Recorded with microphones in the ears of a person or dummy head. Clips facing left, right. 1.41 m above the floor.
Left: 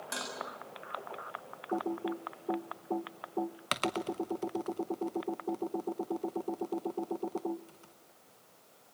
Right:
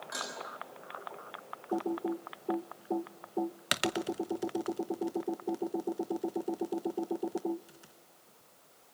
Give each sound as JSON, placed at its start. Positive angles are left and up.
{"t": 0.1, "sound": "dishes clattering", "side_deg": 30, "distance_m": 7.0}
{"t": 1.7, "sound": "typing on a keyboard", "side_deg": -10, "distance_m": 0.6}